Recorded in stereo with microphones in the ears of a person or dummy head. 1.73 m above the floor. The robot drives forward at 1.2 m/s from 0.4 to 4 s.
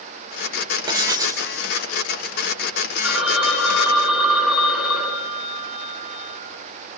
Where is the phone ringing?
5° right (ahead or behind), 7.5 m.